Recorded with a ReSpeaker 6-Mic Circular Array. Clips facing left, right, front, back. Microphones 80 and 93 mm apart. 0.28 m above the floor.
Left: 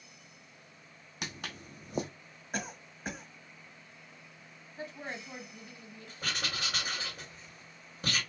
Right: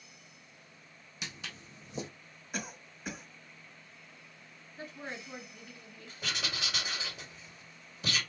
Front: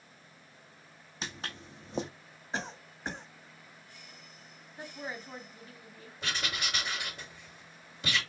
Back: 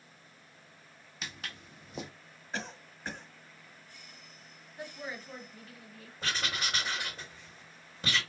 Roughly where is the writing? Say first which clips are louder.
Left 1 dB, back 1 dB; behind left.